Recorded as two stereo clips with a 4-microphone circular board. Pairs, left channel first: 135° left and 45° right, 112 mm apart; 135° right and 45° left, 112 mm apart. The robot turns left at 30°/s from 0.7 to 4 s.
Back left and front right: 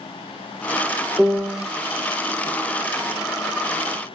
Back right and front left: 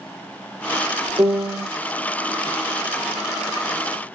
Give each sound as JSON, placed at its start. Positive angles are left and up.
{"t": 1.2, "sound": "a piano", "azimuth_deg": 30, "distance_m": 0.6}